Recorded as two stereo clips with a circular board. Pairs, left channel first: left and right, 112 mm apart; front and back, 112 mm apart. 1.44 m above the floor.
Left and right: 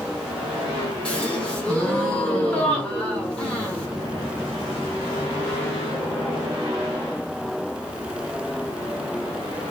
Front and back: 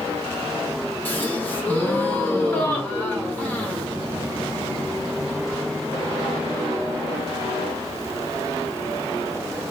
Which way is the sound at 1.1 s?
30° left.